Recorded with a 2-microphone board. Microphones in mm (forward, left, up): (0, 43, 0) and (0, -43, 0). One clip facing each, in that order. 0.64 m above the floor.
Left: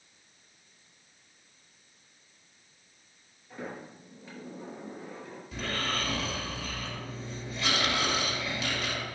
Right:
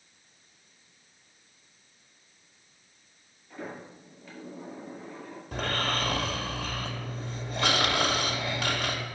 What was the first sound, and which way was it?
A sliding door, 20° left (ahead or behind).